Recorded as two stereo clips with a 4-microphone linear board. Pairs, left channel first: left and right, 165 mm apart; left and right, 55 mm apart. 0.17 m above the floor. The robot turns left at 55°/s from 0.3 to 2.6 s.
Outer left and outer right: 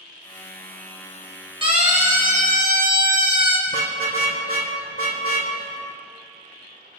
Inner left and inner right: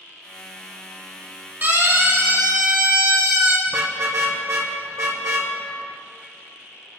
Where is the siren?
35° right (ahead or behind), 4.5 m; by 3.6 s 70° right (ahead or behind), 5 m.